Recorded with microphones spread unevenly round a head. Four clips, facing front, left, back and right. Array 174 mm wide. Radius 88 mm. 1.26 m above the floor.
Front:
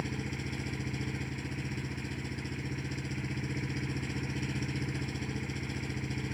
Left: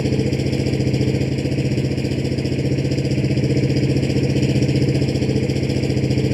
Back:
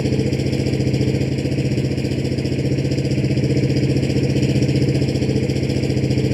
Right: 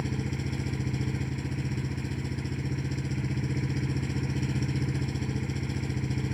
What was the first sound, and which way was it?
An engine running, 145° left.